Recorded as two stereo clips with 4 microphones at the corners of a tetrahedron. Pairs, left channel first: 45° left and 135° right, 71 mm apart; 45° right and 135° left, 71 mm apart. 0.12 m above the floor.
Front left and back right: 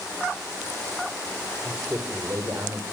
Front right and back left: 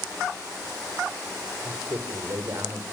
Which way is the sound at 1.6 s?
175° left.